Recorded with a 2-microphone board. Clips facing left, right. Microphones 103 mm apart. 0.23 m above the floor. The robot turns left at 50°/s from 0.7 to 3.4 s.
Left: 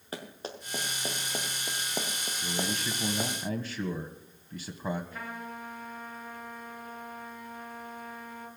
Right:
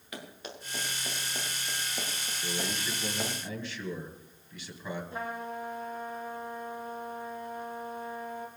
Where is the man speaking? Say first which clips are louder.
Left 2 dB; 135° left, 1.3 m; by 5.0 s 85° left, 1.3 m.